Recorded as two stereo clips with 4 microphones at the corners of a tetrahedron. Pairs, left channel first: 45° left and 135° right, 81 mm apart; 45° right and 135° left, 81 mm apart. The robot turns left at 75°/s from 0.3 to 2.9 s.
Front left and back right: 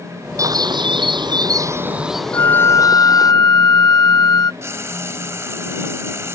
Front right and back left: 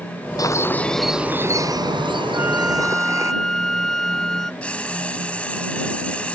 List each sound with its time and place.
0.4 s a bird: 85° right; by 3.3 s 85° left
2.3 s a flute: 80° left; by 4.5 s 40° left
4.6 s frying: 110° right